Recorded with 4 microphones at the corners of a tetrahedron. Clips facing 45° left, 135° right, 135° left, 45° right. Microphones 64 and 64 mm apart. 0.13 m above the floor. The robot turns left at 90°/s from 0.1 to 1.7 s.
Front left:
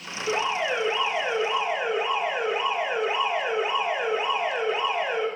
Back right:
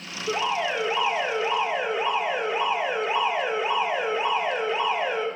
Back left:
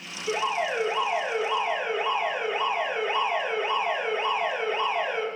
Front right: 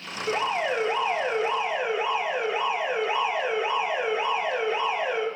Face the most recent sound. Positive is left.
turn(degrees=-125)